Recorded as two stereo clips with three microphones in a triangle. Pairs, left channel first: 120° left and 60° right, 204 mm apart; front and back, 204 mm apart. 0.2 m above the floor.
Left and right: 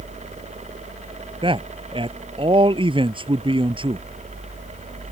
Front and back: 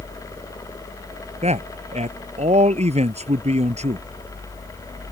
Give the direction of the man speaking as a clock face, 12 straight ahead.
4 o'clock.